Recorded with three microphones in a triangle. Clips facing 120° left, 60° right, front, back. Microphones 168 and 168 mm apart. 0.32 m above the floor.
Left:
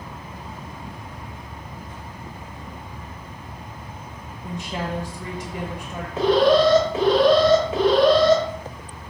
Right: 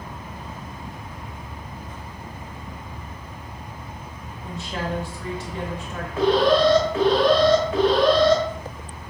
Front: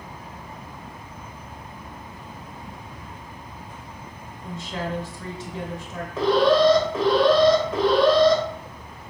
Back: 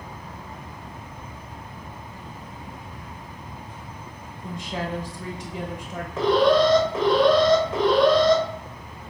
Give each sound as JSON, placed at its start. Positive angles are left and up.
{"t": 4.4, "sound": "a woman speaking", "azimuth_deg": 150, "distance_m": 1.0}
{"t": 6.2, "sound": "an alarm", "azimuth_deg": 85, "distance_m": 2.0}